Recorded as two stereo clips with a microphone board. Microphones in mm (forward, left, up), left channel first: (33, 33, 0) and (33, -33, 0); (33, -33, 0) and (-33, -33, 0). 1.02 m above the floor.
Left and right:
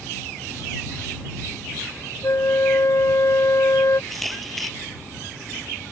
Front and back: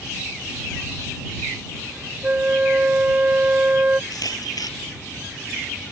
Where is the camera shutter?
Straight ahead.